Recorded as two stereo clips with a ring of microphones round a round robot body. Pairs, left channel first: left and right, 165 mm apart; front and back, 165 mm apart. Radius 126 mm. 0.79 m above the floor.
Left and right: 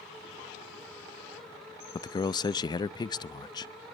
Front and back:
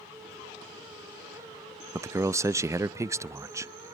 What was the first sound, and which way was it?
A man speaking, 125° left.